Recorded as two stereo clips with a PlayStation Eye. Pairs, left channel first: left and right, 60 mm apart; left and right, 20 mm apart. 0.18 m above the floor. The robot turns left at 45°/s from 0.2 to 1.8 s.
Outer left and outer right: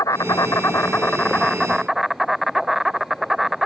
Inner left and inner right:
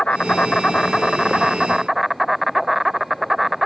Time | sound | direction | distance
0.0 | an insect | 70° left | ?